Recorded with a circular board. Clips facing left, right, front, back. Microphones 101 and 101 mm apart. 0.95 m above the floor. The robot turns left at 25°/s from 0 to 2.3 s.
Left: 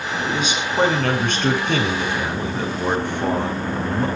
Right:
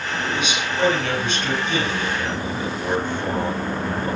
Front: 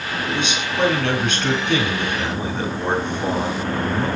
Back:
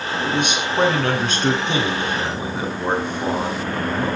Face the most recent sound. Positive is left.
turn(degrees=100)